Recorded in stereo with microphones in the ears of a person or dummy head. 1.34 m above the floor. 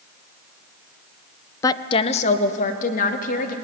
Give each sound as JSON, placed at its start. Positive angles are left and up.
{"t": 1.6, "sound": "a woman speaking", "side_deg": 15, "distance_m": 0.7}